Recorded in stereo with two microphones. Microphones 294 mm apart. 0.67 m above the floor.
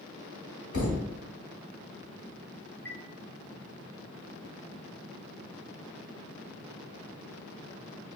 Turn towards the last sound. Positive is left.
turn(degrees=5)  # may be behind; listen again after turning